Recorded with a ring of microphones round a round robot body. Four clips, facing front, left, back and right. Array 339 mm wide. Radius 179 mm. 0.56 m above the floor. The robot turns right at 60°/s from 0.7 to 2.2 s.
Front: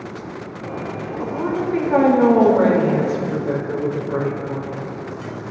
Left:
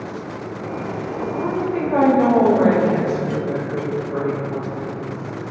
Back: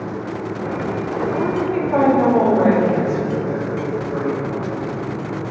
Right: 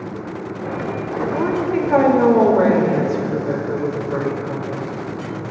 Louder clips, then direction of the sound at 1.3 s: Right 3 dB, front 1 dB; 105° right.